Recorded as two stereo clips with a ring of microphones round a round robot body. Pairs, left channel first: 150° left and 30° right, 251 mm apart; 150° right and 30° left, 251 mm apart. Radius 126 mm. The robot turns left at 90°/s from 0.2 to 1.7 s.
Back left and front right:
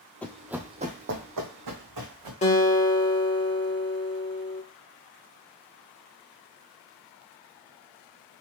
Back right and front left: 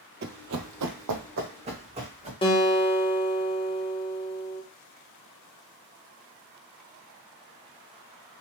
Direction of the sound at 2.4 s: 165° left.